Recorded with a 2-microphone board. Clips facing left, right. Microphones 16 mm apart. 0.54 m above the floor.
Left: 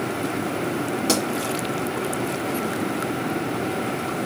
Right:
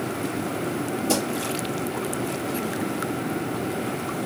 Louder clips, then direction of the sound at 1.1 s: Left 2 dB; 80° left.